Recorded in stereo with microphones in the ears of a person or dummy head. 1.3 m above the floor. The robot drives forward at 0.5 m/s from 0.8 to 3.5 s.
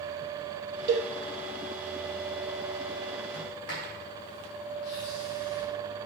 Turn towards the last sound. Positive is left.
turn(degrees=70)  # may be behind; listen again after turning